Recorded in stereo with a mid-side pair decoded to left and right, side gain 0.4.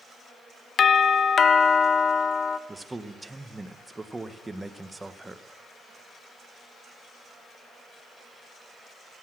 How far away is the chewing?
I don't hear chewing.